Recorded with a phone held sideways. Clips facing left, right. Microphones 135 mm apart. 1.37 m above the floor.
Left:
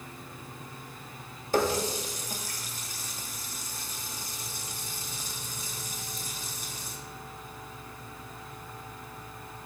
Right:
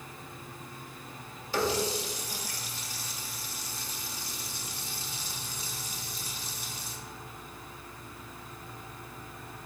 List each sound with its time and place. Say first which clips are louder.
1.5 s a running tap: left 2 dB; 45° left (ahead or behind), 1.5 m